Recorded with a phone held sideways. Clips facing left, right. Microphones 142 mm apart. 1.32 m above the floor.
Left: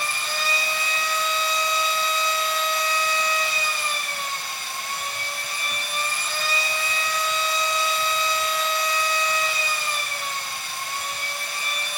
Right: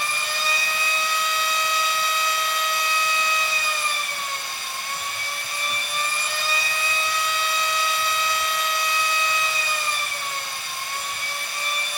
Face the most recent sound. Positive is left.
turn(degrees=45)  # may be behind; listen again after turning